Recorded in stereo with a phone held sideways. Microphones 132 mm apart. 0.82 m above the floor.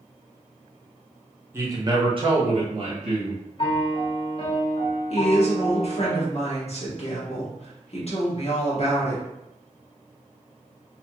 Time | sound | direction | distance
1.5 | a man speaking | 20° right (ahead or behind) | 0.7 m
3.6 | a piano | 45° left (ahead or behind) | 0.6 m
5.1 | a woman speaking | 50° left (ahead or behind) | 1.1 m